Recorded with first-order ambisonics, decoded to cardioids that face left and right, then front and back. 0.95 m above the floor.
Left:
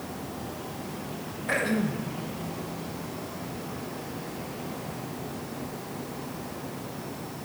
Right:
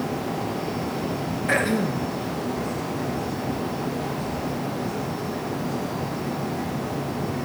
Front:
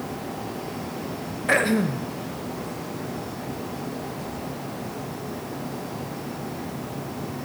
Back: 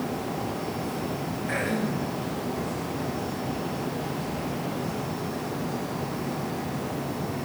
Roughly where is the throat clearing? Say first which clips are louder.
Right 4 dB, front 8 dB; ahead.